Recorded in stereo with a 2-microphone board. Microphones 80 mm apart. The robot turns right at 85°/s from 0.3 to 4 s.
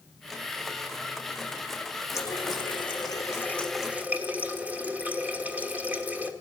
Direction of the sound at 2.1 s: 45° left.